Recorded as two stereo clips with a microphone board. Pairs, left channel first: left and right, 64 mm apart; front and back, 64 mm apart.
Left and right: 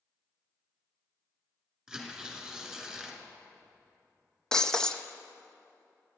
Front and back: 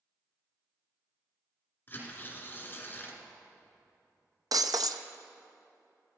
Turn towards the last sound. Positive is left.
turn(degrees=170)